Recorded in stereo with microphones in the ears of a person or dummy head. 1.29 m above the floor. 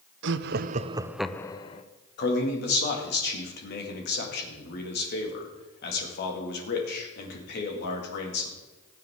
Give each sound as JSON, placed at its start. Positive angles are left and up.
{"t": 0.2, "sound": "laughter", "side_deg": -65, "distance_m": 0.8}
{"t": 2.2, "sound": "a man speaking", "side_deg": 55, "distance_m": 2.0}